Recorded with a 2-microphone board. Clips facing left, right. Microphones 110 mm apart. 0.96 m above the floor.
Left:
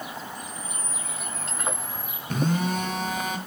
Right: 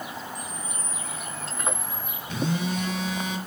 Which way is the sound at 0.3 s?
5° left (ahead or behind).